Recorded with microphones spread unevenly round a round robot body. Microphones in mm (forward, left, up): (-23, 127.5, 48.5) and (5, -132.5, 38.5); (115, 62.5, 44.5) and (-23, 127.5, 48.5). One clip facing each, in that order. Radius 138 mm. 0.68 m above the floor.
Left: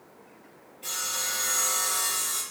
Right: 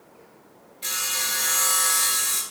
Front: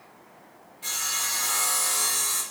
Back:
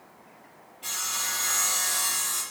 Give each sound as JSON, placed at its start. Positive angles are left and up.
{"t": 0.8, "sound": "sawing", "azimuth_deg": -80, "distance_m": 4.5}